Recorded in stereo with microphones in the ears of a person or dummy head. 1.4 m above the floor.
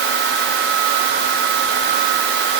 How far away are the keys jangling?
I don't hear keys jangling.